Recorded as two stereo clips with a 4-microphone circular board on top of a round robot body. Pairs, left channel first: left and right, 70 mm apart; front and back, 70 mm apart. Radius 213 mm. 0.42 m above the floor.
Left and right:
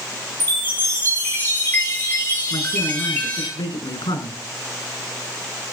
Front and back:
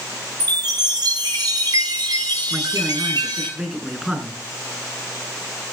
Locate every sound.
0.4 s a chime: 155° left, 10 m
2.5 s a man speaking: 95° left, 7 m